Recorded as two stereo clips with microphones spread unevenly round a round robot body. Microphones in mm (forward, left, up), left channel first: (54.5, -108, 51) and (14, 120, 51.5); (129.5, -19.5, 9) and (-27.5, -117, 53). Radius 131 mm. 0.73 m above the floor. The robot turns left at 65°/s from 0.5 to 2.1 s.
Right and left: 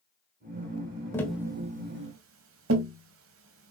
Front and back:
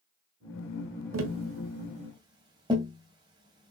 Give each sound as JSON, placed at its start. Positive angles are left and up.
{"t": 1.1, "sound": "tapping", "azimuth_deg": -160, "distance_m": 2.0}